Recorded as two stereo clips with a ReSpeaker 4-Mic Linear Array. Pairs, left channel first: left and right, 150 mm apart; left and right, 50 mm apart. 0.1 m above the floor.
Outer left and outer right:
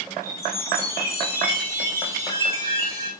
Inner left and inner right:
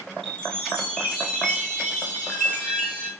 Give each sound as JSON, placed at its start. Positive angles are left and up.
{"t": 0.2, "sound": "a chime", "side_deg": 20, "distance_m": 5.5}